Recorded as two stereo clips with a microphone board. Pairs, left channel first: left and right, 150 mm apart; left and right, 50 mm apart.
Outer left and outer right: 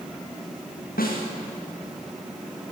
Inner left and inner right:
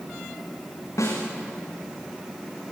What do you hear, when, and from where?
1.0 s a snare drum: 80° left, 9 m